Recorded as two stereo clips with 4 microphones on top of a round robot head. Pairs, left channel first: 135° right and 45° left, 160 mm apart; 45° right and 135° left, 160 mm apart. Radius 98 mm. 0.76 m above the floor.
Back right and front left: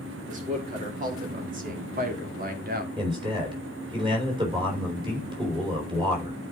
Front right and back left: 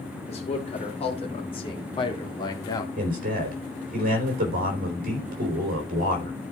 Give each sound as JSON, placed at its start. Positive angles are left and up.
{"t": 0.3, "sound": "a man speaking", "azimuth_deg": 5, "distance_m": 3.5}
{"t": 3.0, "sound": "a man speaking", "azimuth_deg": 105, "distance_m": 3.5}